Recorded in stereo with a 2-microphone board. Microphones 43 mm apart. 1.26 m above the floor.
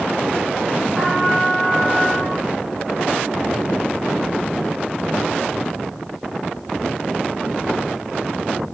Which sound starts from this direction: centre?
A trumpet, at 0.9 s.